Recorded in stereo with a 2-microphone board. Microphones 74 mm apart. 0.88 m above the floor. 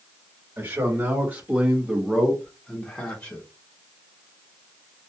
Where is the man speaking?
30° right (ahead or behind), 1.5 m; by 3.4 s 30° left (ahead or behind), 1.0 m.